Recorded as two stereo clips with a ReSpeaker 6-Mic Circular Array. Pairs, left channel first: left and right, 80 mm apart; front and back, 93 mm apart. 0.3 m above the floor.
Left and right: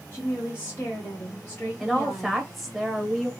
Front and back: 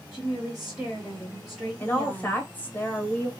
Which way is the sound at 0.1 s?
100° left.